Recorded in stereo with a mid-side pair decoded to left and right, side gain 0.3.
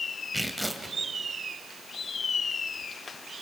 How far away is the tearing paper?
About 2.5 m.